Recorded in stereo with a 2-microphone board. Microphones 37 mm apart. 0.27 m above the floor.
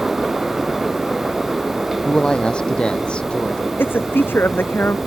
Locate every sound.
2.0 s a woman speaking: 25° left (ahead or behind); by 3.7 s 30° left (ahead or behind)
3.8 s a woman speaking: 75° left (ahead or behind)